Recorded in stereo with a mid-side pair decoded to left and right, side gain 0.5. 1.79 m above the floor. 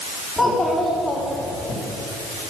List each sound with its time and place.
0.4 s a child speaking: 5° left, 3.5 m; by 1.8 s 20° left, 3.5 m